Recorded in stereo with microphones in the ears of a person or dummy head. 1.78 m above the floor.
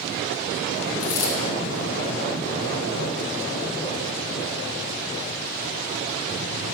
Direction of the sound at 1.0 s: 25° left (ahead or behind).